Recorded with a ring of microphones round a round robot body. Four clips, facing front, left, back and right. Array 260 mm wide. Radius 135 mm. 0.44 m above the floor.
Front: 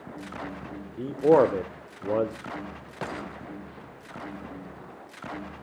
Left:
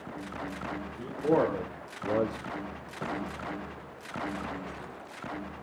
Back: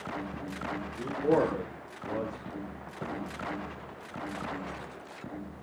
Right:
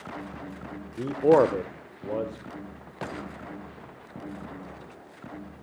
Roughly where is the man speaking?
Ahead right.